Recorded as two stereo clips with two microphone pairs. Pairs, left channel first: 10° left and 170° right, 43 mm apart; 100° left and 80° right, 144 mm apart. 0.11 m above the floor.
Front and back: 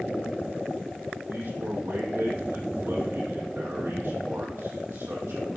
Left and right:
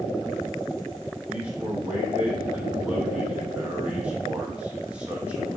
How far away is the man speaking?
About 5 m.